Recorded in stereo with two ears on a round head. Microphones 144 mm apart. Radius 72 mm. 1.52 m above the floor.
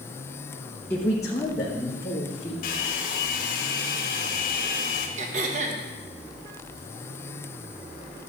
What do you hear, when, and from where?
0.9 s a man speaking: 15° left (ahead or behind), 1.2 m; by 2.5 s 30° left (ahead or behind), 2.5 m
2.6 s a hair dryer: 55° left (ahead or behind), 1.5 m
5.2 s throat clearing: 45° right (ahead or behind), 1.3 m